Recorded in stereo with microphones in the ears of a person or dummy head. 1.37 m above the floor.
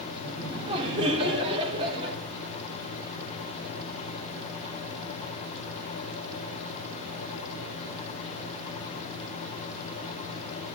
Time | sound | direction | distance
0.2 | laughter | 30° right (ahead or behind) | 3.5 m